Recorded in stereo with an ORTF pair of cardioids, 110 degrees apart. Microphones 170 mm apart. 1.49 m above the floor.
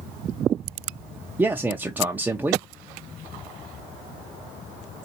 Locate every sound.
1.4 s a man speaking: 10° right, 0.6 m